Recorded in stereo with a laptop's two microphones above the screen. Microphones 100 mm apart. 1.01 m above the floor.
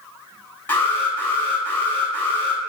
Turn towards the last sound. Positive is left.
turn(degrees=20)  # may be behind; listen again after turning